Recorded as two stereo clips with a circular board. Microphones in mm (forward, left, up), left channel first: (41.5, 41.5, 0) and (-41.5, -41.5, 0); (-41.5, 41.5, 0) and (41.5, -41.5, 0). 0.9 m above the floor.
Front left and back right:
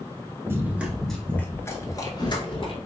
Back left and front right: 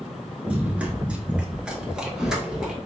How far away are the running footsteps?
About 0.9 m.